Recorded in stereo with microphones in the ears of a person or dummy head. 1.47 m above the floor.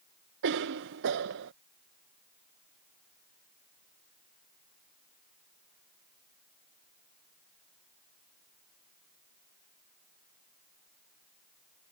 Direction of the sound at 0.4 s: 65° right (ahead or behind).